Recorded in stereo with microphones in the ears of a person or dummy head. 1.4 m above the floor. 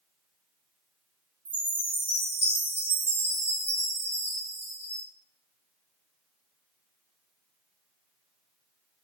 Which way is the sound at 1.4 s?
20° right (ahead or behind).